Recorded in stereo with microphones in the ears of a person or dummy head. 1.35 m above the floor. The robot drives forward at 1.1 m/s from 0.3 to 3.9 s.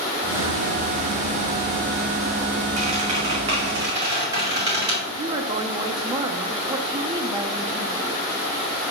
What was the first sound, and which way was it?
A squeak, 40° right (ahead or behind).